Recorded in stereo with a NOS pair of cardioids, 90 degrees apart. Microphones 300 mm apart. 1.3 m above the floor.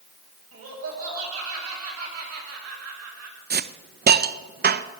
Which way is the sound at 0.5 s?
50° right.